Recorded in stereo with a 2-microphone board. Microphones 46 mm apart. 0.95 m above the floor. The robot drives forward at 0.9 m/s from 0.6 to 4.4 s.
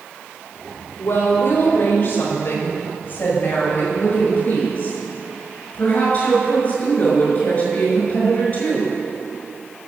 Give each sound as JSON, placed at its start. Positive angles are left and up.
{"t": 1.0, "sound": "a woman speaking", "side_deg": 55, "distance_m": 3.5}